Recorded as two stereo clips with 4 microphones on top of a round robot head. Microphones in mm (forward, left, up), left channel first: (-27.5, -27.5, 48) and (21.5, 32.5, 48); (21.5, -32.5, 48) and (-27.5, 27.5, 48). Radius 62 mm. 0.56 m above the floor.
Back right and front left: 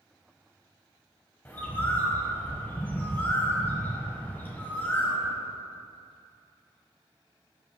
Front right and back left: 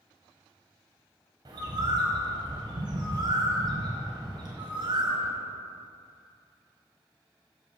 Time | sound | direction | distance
1.4 | a bird | 160° left | 1.0 m